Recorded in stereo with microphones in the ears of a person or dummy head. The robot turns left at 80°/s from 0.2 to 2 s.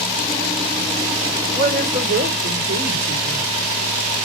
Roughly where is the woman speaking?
Right.